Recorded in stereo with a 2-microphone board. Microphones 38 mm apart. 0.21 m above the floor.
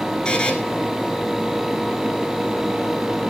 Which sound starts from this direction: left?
A buzzer, at 0.2 s.